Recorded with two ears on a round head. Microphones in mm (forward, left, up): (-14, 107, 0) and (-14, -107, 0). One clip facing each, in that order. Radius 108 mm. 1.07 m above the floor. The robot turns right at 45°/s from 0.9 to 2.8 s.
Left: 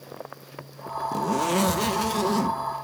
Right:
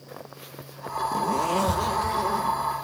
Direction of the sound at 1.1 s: 10° left.